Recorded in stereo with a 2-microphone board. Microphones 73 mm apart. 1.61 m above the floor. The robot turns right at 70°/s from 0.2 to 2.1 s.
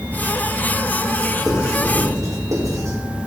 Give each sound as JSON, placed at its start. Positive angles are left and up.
{"t": 1.5, "sound": "writing", "side_deg": -5, "distance_m": 6.0}